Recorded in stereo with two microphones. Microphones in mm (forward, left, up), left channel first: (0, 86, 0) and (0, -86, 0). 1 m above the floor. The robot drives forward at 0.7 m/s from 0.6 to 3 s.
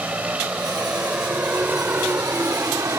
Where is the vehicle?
10° right (ahead or behind); by 3.0 s 20° right (ahead or behind).